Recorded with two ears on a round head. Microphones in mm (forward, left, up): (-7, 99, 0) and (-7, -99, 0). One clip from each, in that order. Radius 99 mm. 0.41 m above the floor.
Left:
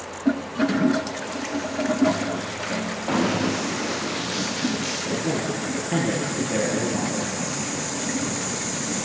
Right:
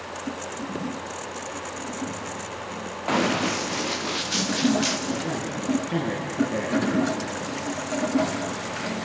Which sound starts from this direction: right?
Running footsteps, at 3.1 s.